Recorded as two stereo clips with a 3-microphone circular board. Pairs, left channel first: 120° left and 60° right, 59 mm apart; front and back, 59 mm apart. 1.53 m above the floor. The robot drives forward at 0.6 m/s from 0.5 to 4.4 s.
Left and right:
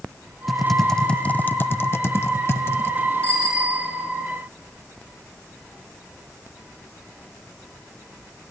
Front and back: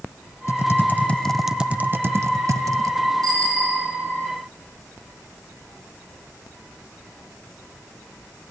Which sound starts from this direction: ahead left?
Typing on a keyboard, at 0.5 s.